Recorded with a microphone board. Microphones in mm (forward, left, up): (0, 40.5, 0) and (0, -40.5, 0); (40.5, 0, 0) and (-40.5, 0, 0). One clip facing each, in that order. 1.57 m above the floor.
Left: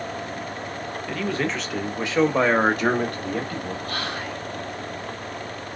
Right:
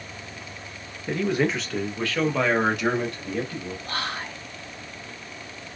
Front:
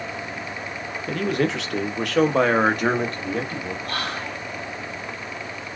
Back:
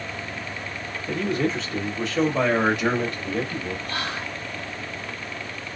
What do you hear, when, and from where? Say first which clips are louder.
1.1 s a man speaking: right 3 dB, front 2 dB; 25° right, 0.7 m; by 3.8 s 60° left, 1.2 m
3.9 s whispering: left 2 dB, front 1 dB; 25° right, 1.3 m